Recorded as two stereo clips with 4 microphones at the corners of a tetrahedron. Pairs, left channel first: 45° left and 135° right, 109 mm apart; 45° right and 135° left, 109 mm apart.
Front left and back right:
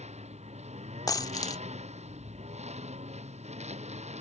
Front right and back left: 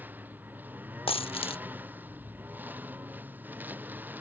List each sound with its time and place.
0.0 s a lawn mower: 150° right
1.1 s a dropped coin: 10° right